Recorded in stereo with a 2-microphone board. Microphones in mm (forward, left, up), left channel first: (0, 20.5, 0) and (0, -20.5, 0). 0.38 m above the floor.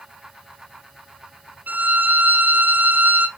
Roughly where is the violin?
Right.